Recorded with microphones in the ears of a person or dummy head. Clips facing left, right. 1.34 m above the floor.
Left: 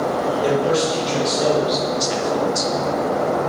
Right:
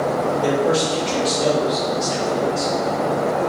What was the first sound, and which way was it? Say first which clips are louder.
A man speaking: left 1 dB; 5° right (ahead or behind).